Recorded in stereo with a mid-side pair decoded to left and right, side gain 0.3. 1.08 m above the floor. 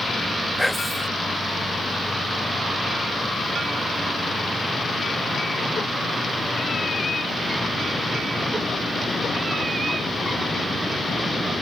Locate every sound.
0.6 s whispering: 5° left